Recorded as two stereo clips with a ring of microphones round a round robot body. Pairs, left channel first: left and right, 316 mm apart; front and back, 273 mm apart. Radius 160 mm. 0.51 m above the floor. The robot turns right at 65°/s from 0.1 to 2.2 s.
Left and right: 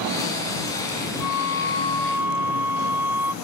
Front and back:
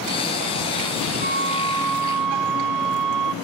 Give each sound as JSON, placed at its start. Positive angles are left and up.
{"t": 1.2, "sound": "a flute", "azimuth_deg": 120}